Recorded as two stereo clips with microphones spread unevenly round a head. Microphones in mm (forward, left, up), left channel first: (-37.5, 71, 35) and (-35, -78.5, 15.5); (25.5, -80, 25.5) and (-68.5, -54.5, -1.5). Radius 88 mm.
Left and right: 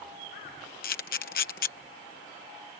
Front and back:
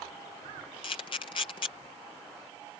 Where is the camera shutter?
50° left.